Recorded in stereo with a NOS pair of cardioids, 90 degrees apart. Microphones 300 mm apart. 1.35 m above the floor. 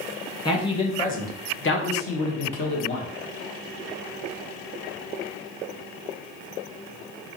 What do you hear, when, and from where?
0.5 s a man speaking: 15° left, 1.3 m; by 3.1 s 75° left, 1.4 m